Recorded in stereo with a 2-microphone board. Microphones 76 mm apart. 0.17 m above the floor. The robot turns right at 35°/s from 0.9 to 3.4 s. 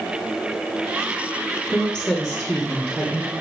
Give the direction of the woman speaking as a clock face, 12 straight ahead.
7 o'clock.